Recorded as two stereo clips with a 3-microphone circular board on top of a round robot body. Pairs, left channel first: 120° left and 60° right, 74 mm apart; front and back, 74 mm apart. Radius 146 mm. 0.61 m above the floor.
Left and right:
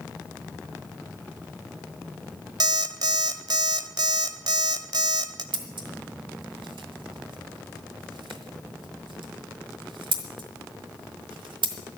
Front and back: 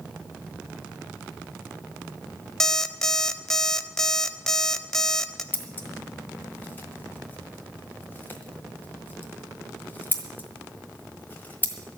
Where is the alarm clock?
85° right, 1.0 m.